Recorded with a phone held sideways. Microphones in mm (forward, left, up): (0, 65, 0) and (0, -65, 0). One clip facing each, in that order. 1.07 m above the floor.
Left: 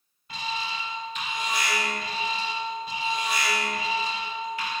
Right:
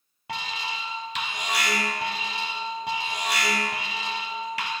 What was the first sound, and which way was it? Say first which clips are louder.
An alarm: even; 80° right.